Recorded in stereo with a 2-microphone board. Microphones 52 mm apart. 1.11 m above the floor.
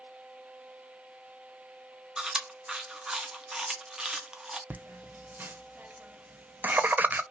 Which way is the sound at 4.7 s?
35° right (ahead or behind).